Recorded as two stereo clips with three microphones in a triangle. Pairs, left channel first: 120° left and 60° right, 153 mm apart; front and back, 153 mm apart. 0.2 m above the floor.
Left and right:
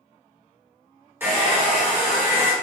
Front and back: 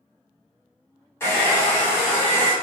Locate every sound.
1.2 s a hair dryer: 25° right, 1.7 m